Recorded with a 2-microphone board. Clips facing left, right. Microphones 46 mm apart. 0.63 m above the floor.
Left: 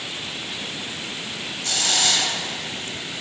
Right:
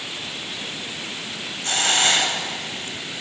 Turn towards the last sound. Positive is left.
turn(degrees=-35)  # may be behind; listen again after turning